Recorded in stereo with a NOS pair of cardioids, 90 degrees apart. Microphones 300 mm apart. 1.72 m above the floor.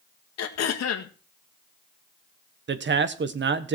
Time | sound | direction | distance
0.4 | throat clearing | 60° left | 1.8 m
2.7 | a man speaking | 40° right | 1.4 m